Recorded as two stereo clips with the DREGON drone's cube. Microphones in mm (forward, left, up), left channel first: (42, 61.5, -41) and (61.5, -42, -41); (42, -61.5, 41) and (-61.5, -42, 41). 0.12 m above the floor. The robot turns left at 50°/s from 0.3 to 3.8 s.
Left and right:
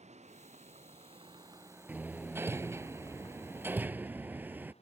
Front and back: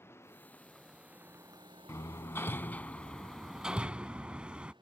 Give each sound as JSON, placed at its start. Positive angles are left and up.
{"t": 0.0, "sound": "a vehicle", "azimuth_deg": -80}
{"t": 1.9, "sound": "hammering", "azimuth_deg": -25}